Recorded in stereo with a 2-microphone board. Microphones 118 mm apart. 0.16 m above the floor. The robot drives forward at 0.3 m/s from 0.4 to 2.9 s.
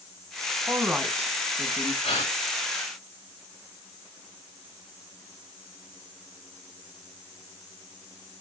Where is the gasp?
70° left (ahead or behind), 6 m; by 2.3 s 65° left (ahead or behind), 6 m.